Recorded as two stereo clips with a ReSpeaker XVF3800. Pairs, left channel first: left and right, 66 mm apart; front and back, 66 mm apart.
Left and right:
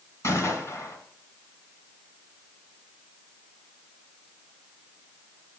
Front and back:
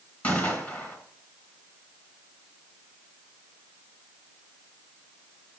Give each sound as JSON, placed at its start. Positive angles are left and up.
{"t": 0.2, "sound": "a gunshot", "azimuth_deg": 55, "distance_m": 2.5}